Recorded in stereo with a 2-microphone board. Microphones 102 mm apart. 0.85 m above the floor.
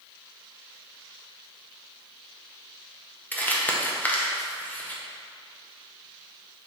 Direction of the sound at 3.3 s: 20° left (ahead or behind).